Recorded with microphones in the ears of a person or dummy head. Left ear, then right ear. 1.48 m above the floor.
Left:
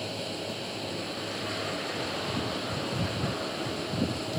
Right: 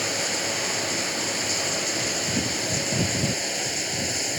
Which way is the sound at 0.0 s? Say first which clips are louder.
Right 9 dB; 60° right (ahead or behind).